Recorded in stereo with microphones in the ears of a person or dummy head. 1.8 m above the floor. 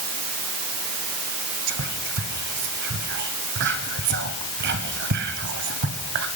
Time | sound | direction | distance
1.7 | whispering | 55° right (ahead or behind) | 1.2 m